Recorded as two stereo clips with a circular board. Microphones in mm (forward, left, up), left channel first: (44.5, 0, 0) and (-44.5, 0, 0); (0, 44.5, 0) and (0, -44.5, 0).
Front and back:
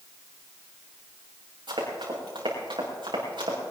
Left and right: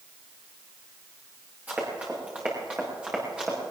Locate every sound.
1.7 s running footsteps: 160° right, 5.5 m; by 3.6 s 170° right, 5 m